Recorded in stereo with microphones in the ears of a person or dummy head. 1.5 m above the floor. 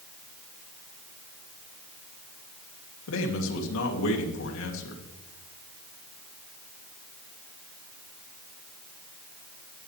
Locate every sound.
3.1 s a man speaking: 75° left (ahead or behind), 2.5 m